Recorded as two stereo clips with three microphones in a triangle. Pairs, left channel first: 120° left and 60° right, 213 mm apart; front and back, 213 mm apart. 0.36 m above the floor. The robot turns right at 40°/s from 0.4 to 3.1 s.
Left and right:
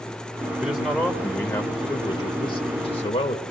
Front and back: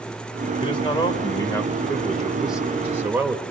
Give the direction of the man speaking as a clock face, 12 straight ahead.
11 o'clock.